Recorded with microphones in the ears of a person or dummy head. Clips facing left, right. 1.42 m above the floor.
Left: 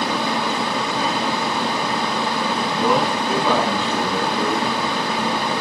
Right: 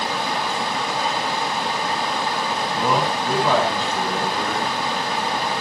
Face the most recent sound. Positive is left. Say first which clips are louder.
# left 2 dB
turn(degrees=5)  # may be behind; listen again after turning